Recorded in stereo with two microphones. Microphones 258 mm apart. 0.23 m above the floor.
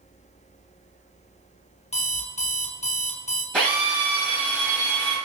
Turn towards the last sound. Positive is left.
turn(degrees=5)  # may be behind; listen again after turning